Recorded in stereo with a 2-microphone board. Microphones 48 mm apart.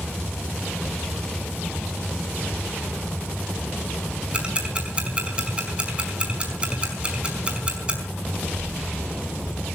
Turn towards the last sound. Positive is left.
turn(degrees=-25)  # may be behind; listen again after turning